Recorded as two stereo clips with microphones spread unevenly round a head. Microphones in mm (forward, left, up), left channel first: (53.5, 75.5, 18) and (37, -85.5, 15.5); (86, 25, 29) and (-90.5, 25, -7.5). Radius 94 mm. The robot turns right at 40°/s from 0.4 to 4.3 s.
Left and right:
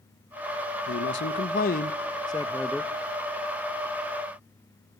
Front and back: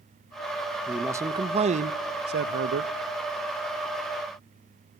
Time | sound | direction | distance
0.9 | a man speaking | 95° left | 1.1 m